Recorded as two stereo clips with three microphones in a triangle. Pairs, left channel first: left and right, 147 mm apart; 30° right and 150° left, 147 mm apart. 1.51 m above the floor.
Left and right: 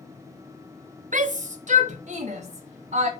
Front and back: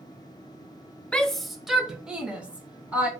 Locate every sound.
1.1 s a shout: 115° right, 0.7 m; by 3.1 s 130° right, 2 m